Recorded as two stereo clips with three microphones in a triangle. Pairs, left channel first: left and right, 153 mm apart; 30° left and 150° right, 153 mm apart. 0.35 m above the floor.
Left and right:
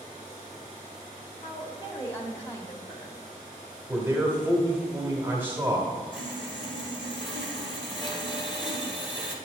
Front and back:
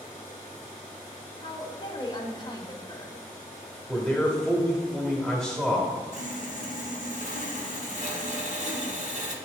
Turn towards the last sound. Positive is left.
turn(degrees=35)